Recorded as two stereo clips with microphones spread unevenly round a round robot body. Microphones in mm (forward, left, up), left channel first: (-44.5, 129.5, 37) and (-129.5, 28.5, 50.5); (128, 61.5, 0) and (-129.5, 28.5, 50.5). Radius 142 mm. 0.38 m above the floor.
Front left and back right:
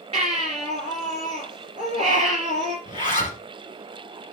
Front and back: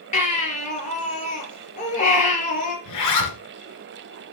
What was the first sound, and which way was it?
A baby crying, 60° right.